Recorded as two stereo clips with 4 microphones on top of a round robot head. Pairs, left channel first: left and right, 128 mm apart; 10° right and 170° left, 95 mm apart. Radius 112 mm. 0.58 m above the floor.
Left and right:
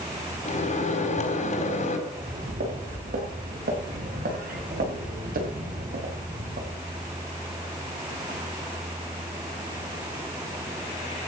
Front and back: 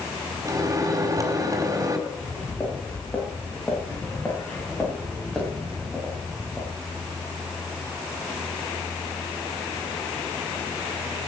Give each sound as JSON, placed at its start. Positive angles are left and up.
{"t": 0.5, "sound": "a microwave", "azimuth_deg": 115, "distance_m": 4.0}
{"t": 2.1, "sound": "footsteps", "azimuth_deg": -85, "distance_m": 9.0}